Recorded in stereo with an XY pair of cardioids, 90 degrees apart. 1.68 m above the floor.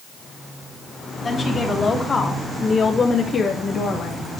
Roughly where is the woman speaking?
Ahead left.